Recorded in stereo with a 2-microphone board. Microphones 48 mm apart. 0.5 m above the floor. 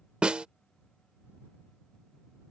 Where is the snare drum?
25° right (ahead or behind).